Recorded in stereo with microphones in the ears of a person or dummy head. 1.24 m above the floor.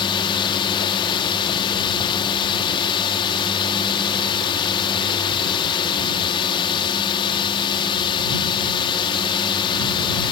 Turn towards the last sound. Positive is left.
turn(degrees=20)  # may be behind; listen again after turning